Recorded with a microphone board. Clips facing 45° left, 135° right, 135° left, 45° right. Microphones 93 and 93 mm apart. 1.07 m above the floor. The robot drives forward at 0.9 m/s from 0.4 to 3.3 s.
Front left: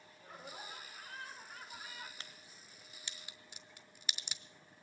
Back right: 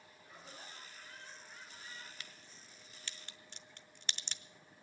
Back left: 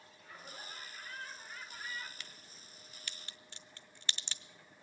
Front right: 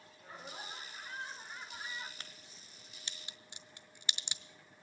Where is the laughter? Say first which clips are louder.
Front left 5 dB, front right 3 dB; 15° left, 3.5 m; by 2.1 s 25° left, 2 m.